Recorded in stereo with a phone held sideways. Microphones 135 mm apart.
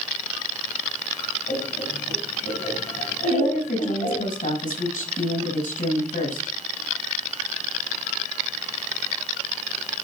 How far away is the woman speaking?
About 6 m.